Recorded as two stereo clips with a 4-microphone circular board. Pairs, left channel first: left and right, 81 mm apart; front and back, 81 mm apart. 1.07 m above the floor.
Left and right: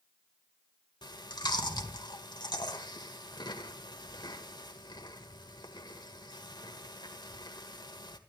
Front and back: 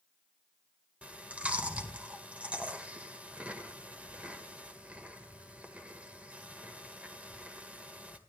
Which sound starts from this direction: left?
Chewing, at 1.0 s.